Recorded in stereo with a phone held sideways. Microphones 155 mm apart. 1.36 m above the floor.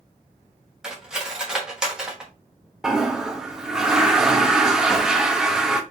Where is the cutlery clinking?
5° right (ahead or behind), 0.9 m.